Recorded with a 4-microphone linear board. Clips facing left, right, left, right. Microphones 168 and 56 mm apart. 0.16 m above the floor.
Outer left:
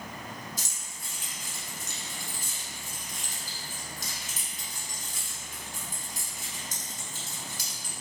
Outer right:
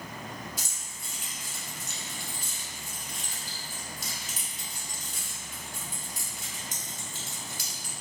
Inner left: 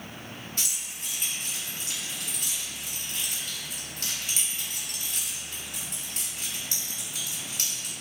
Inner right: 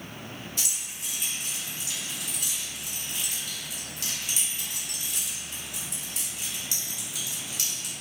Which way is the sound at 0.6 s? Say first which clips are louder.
Even, even; 45° left (ahead or behind).